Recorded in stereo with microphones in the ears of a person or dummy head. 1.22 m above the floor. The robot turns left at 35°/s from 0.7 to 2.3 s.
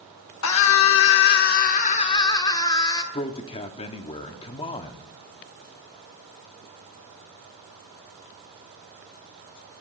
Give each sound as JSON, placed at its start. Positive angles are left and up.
{"t": 0.4, "sound": "a scream", "azimuth_deg": 75, "distance_m": 1.1}
{"t": 3.1, "sound": "a man speaking", "side_deg": 20, "distance_m": 0.6}